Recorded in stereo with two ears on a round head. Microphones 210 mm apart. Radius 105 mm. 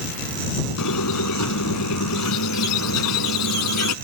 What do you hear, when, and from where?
0.8 s a squeak: 80° left